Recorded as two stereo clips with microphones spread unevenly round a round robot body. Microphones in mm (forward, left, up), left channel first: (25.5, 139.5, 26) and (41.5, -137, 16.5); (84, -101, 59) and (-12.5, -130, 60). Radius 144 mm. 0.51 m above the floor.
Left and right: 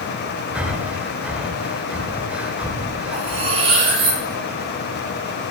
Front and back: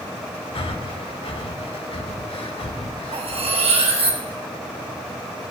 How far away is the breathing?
About 1.2 m.